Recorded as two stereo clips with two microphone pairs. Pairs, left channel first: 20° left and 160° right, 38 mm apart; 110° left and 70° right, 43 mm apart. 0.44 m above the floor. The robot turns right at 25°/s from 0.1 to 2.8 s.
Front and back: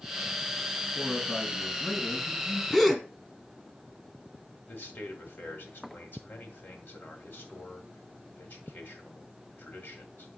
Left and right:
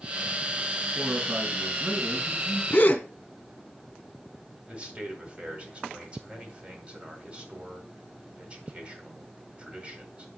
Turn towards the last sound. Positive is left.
turn(degrees=-5)